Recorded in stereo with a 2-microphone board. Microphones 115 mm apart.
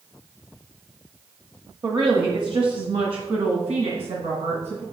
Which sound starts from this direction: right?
A woman speaking, at 1.8 s.